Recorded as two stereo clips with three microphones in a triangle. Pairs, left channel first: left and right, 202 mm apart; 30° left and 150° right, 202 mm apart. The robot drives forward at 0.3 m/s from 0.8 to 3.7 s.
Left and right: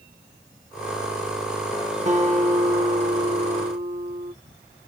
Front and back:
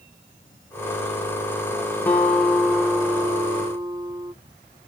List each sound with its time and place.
2.1 s a guitar: 50° right, 1.0 m; by 4.3 s 90° right, 0.8 m